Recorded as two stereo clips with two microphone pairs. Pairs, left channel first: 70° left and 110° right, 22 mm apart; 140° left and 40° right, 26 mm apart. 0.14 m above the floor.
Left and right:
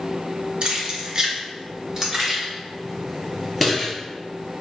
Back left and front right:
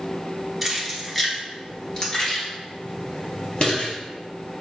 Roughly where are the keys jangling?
Behind right.